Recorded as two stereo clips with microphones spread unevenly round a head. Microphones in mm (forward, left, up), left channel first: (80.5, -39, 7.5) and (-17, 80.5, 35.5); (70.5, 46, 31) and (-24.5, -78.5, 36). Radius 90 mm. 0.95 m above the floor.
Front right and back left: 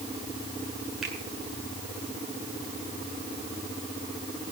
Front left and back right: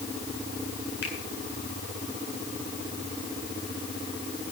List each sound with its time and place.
1.0 s a finger snap: 40° left, 9.5 m